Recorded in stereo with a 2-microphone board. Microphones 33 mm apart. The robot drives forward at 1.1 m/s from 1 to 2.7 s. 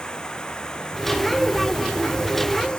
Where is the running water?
25° left (ahead or behind).